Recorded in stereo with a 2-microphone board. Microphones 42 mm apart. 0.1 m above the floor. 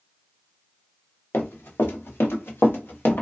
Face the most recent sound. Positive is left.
turn(degrees=50)  # may be behind; listen again after turning